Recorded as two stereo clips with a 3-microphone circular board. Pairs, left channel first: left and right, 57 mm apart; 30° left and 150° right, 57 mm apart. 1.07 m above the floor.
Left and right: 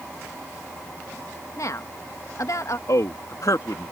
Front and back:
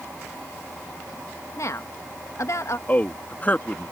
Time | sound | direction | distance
1.6 | a woman speaking | 60° left | ?
2.9 | a man speaking | 90° left | ?